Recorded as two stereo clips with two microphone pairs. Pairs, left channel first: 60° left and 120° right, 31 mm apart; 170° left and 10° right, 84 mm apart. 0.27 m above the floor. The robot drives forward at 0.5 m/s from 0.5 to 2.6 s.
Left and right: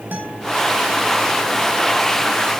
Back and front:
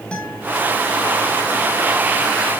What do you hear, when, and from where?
0.1 s a guitar: 110° right, 4 m